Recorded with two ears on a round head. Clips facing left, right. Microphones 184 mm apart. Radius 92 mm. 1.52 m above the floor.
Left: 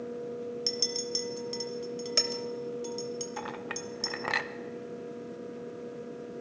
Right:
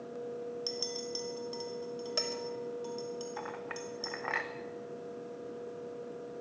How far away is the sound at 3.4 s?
About 0.8 m.